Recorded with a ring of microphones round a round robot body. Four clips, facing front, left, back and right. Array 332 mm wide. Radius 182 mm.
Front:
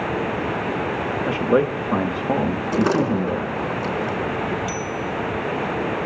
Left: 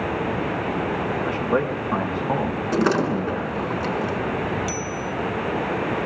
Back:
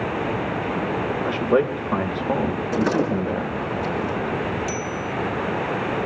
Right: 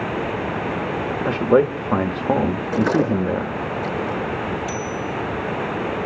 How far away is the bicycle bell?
About 2.5 m.